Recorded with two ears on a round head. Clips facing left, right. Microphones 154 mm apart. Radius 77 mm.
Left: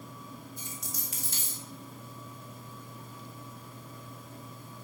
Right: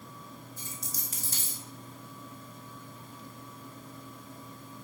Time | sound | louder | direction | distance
0.6 | a dropped coin | left 1 dB | 35° right (ahead or behind) | 1.6 m